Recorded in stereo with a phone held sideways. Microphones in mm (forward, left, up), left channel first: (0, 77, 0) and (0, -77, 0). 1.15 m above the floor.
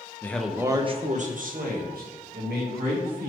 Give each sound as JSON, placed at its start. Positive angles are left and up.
{"t": 0.2, "sound": "a man speaking", "side_deg": 15, "distance_m": 0.6}